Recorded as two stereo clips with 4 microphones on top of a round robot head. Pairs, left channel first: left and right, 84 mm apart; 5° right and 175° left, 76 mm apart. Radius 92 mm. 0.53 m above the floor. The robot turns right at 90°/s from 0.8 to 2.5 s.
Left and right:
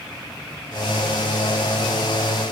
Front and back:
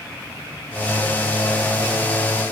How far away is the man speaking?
I don't hear a man speaking.